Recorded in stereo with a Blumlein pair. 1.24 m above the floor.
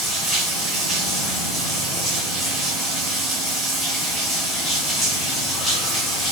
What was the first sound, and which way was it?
Running water, 5° left.